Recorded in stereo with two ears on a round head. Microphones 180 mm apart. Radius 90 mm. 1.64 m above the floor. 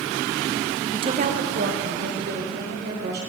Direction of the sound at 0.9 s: 15° right (ahead or behind).